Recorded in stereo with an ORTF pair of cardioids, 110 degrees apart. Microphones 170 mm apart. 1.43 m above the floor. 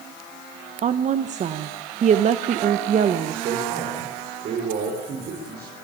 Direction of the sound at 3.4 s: 60° right.